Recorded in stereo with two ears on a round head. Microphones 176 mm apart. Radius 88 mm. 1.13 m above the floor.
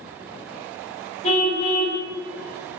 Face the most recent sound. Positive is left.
turn(degrees=35)  # may be behind; listen again after turning